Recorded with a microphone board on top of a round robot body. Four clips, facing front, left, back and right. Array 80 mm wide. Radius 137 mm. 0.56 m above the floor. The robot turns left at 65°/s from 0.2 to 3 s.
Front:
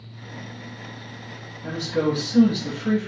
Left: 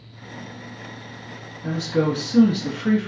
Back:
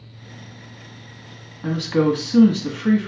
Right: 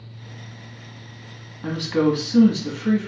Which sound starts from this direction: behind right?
A woman speaking, at 1.6 s.